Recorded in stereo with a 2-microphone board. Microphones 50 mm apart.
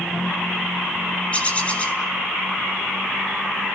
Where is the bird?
25° left (ahead or behind), 3 m.